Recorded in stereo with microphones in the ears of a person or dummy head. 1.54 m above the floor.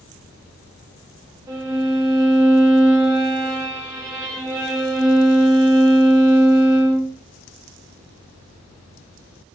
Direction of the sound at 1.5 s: 20° right (ahead or behind).